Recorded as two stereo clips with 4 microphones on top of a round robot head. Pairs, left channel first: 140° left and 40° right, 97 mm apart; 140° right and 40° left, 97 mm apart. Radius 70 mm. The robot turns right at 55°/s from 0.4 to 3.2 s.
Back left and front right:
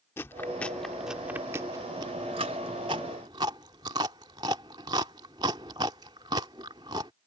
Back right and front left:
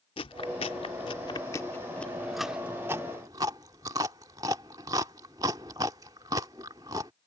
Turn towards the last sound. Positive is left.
turn(degrees=-5)